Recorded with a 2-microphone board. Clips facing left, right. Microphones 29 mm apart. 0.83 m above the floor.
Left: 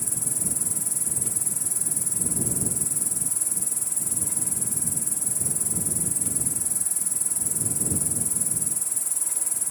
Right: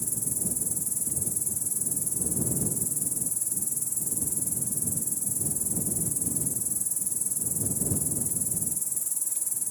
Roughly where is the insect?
Left.